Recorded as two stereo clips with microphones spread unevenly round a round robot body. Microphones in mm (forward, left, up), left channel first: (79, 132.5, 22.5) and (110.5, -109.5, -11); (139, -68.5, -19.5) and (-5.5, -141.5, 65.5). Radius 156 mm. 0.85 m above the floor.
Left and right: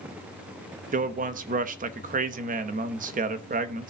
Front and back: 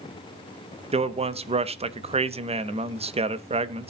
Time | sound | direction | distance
0.9 | a man speaking | 80° right | 0.9 m